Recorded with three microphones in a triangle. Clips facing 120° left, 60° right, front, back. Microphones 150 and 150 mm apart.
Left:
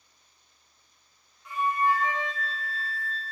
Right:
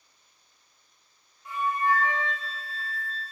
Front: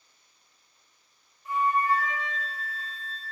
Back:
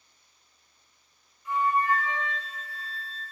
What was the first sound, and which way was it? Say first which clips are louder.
A flute: left 1 dB, even; 5° right.